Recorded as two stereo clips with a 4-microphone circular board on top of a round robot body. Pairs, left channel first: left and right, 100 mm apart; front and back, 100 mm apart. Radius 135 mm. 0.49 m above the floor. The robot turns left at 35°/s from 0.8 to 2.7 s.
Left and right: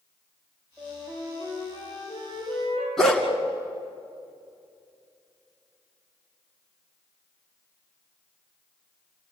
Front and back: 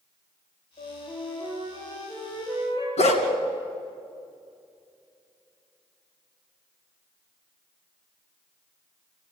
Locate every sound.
0.8 s a flute: 5° left, 7 m; by 2.9 s 65° right, 7 m
3.0 s a dog barking: 5° left, 2.5 m